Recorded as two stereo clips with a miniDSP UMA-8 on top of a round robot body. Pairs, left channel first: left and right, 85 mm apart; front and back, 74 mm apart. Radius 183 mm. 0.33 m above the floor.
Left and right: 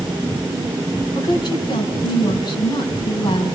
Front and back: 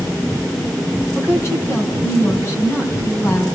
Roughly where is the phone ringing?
No phone ringing in this recording.